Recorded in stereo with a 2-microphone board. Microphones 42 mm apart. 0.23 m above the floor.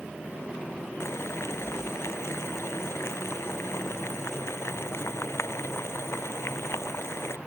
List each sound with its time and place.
1.0 s boiling: 75° left (ahead or behind)